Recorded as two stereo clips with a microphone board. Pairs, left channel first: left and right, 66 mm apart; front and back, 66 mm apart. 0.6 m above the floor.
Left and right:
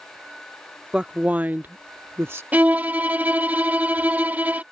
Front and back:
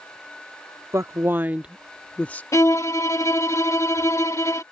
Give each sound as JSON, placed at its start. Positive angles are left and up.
{"t": 0.9, "sound": "a woman speaking", "azimuth_deg": -160}
{"t": 2.5, "sound": "a violin", "azimuth_deg": -30}